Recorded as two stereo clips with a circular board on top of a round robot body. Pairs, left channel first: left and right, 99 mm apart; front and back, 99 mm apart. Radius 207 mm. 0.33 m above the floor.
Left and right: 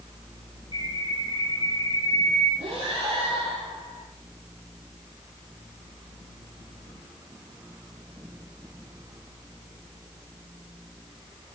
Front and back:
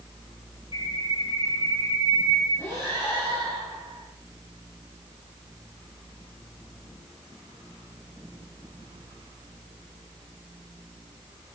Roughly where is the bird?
Ahead left.